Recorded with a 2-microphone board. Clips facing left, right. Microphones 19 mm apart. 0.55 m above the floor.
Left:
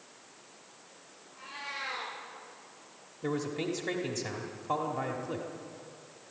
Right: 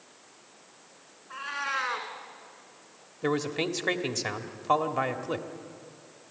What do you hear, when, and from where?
1.3 s a cat meowing: 75° right (ahead or behind), 3.5 m
3.2 s a man speaking: 40° right (ahead or behind), 1.3 m